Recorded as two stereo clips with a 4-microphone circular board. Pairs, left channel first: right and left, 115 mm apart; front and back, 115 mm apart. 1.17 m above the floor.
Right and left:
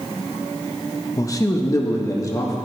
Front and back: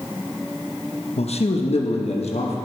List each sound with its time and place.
1.2 s a man speaking: 30° right, 0.9 m